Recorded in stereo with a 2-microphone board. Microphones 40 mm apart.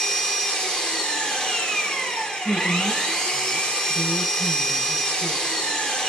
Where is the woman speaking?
55° left (ahead or behind), 5 m.